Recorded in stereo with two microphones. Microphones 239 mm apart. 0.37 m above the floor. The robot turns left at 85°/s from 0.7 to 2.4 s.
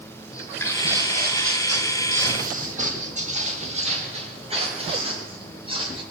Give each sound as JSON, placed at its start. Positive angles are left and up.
{"t": 0.3, "sound": "footsteps", "side_deg": 15, "distance_m": 6.0}